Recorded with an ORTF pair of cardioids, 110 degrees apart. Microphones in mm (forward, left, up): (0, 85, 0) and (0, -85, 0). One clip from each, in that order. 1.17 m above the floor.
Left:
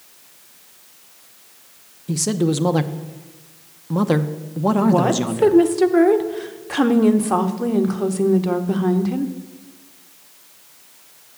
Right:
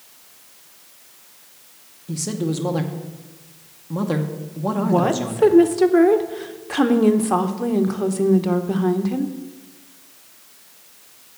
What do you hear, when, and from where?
2.1 s a man speaking: 30° left, 0.7 m
4.8 s a woman speaking: 5° left, 0.9 m